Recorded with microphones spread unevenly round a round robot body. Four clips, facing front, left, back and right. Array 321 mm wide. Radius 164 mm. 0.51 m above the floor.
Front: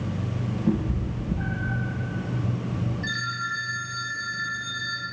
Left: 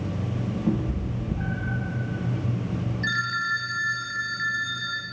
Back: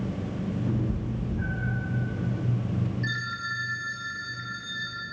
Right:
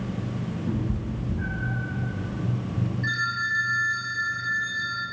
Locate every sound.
0.7 s a cat meowing: 45° left, 5.5 m
3.0 s a phone ringing: 95° left, 5 m